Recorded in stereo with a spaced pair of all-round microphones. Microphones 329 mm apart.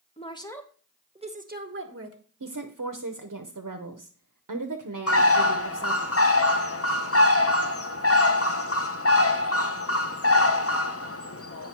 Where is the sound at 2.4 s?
65° right (ahead or behind), 0.8 m.